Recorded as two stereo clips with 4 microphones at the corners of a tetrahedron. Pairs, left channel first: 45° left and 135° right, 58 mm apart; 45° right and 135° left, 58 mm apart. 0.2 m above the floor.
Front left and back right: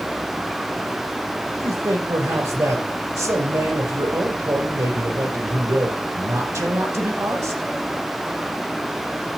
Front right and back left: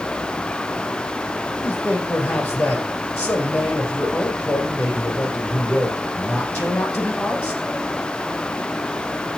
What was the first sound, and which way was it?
A man speaking, 115° right.